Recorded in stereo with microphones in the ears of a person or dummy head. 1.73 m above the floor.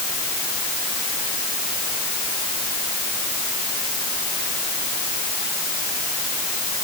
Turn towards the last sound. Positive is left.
No sound to turn to.